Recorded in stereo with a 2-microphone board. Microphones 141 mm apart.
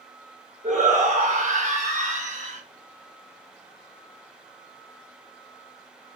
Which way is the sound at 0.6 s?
70° right (ahead or behind).